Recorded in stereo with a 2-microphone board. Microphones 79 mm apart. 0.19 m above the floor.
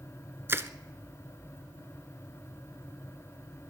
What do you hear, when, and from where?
0.5 s crushing: 30° right (ahead or behind), 0.7 m